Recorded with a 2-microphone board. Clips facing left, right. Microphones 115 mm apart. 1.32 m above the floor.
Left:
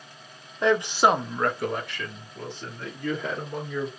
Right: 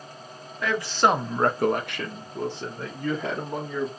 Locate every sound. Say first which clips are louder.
0.6 s a man speaking: left 2 dB; 30° left (ahead or behind), 0.8 m; by 3.9 s 80° right, 2 m